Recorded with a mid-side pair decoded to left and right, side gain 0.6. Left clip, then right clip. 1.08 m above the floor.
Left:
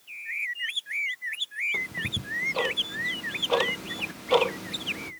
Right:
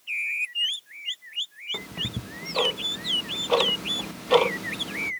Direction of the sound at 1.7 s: 20° right.